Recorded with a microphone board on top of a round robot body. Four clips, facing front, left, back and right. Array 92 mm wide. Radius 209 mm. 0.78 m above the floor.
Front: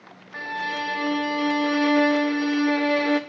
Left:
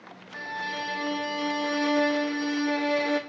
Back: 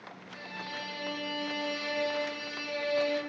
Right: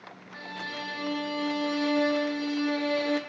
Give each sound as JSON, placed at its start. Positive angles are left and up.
{"t": 0.3, "sound": "a violin", "azimuth_deg": 15, "distance_m": 0.9}